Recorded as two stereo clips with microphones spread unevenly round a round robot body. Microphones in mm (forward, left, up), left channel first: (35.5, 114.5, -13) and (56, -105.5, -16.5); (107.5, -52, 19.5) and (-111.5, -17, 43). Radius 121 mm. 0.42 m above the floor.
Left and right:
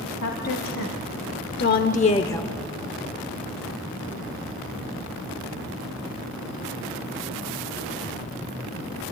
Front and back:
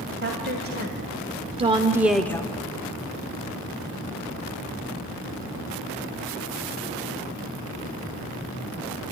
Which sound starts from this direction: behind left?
A woman speaking, at 0.2 s.